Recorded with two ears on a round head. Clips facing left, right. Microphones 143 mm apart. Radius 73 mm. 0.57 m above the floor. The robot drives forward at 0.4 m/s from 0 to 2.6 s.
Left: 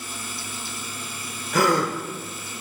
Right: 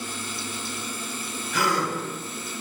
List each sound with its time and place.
1.5 s a gasp: 35° left (ahead or behind), 1.1 m; by 1.9 s 45° left (ahead or behind), 1.0 m